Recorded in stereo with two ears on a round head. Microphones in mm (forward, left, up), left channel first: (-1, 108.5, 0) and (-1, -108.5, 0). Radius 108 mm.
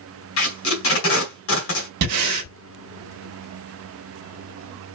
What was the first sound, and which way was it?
Tape being pulled, 65° left (ahead or behind).